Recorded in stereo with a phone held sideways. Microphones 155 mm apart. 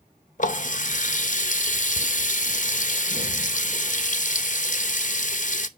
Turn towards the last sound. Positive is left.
turn(degrees=55)  # may be behind; listen again after turning